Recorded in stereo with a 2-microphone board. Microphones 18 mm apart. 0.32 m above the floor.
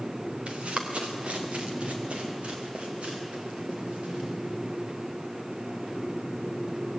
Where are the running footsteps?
70° right (ahead or behind), 3 m; by 4.3 s 90° right, 8.5 m.